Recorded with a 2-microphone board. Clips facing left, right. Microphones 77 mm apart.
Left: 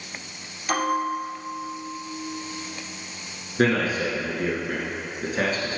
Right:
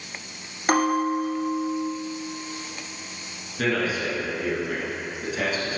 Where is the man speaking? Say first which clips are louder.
Left 3 dB; 45° left (ahead or behind), 1.4 m.